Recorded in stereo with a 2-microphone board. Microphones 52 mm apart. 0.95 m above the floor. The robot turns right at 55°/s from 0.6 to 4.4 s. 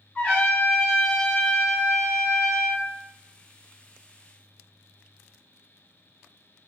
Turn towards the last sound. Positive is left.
turn(degrees=0)